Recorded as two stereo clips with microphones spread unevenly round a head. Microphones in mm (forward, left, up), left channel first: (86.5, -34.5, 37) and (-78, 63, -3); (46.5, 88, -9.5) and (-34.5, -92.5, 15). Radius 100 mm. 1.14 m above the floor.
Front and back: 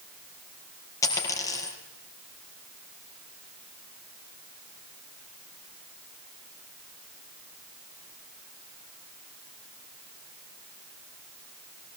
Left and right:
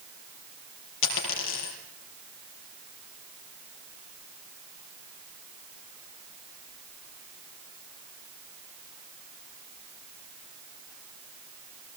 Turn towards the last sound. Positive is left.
turn(degrees=40)